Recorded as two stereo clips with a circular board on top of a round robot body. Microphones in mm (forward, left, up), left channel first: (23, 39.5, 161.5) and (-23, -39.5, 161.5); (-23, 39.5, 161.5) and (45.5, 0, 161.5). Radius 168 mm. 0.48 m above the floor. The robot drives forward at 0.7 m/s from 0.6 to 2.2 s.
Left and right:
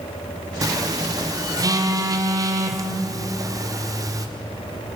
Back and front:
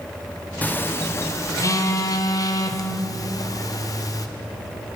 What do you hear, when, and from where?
0.6 s a phone buzzing: 150° right, 1.0 m; by 4.3 s 170° right, 1.9 m